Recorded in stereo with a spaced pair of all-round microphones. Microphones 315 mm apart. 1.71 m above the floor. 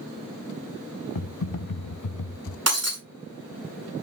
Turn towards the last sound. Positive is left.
turn(degrees=-50)  # may be behind; listen again after turning